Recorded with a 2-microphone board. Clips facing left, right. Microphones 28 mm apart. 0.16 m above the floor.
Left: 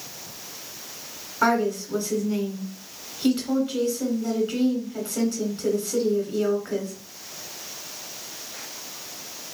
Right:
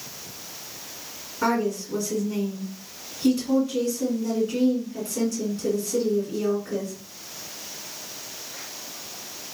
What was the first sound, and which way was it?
A woman speaking, 40° left (ahead or behind).